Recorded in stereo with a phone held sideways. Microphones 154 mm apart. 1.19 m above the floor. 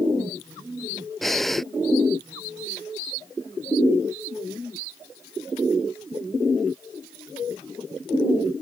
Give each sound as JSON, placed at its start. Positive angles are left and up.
{"t": 1.2, "sound": "breathing", "side_deg": 0}